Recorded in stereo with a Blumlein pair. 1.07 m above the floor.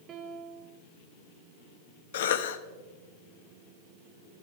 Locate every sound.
0.1 s a piano: 25° right, 1.4 m
2.1 s a cough: 55° left, 1.2 m